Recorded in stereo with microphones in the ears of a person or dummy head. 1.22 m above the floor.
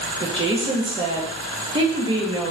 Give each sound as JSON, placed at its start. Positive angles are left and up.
{"t": 0.2, "sound": "a woman speaking", "side_deg": -25, "distance_m": 0.5}